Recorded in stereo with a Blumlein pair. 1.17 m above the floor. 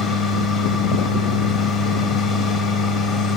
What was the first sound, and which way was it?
A machine running, 25° left.